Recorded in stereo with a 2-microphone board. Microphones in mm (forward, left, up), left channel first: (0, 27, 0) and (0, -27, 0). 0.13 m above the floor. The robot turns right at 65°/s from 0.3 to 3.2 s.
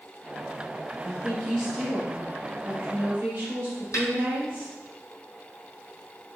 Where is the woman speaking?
145° left, 1.5 m; by 4.7 s 75° right, 1.5 m.